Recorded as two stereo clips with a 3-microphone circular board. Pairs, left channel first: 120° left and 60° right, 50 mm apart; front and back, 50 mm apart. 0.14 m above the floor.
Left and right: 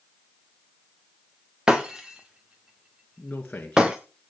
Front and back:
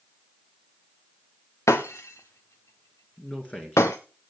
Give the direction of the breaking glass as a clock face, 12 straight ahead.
11 o'clock.